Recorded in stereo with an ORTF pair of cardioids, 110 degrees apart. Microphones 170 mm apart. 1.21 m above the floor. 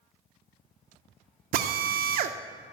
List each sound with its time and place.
1.5 s a drill: 60° right, 0.7 m